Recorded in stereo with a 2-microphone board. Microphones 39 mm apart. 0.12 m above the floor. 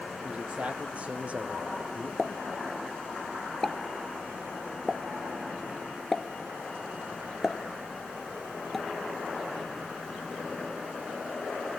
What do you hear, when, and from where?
0.2 s a man speaking: 35° right (ahead or behind), 3.5 m
2.2 s a pop: 10° left (ahead or behind), 0.7 m